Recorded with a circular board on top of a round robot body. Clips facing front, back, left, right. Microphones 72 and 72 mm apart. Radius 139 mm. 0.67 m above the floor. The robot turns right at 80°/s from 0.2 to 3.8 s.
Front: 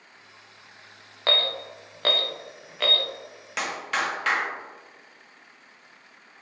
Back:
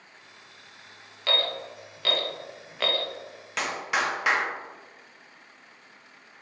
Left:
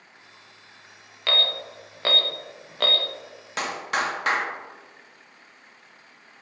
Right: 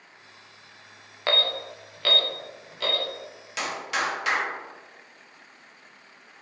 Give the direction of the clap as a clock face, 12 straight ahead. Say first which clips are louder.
Even, left 2 dB; 9 o'clock.